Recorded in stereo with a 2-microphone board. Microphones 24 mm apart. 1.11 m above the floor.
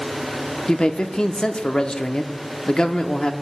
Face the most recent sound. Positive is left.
turn(degrees=30)  # may be behind; listen again after turning